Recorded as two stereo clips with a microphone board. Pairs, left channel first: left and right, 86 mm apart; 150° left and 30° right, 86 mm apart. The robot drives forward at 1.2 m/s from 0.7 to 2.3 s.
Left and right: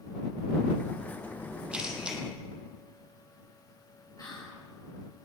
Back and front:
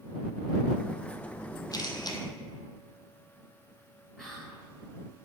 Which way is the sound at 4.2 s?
65° left.